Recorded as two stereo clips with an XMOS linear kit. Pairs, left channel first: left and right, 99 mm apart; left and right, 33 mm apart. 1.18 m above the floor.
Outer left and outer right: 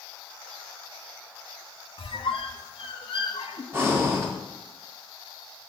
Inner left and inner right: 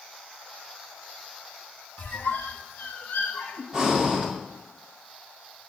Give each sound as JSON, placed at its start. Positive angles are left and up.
{"t": 2.0, "sound": "a squeak", "side_deg": 75, "distance_m": 0.9}
{"t": 3.7, "sound": "breathing", "side_deg": -25, "distance_m": 1.5}